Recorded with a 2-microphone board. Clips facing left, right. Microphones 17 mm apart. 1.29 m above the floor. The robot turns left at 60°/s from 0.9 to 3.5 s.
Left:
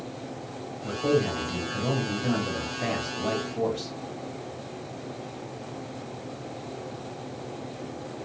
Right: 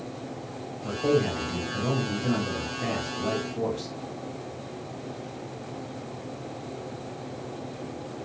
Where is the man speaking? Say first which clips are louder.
Even; 155° right, 1.6 m; by 3.9 s 50° left, 1.6 m.